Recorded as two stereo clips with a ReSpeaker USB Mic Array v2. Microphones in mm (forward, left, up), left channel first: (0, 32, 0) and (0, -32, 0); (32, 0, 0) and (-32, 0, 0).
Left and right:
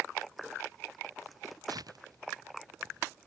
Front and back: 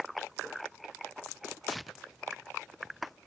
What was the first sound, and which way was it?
Tearing paper, 90° right.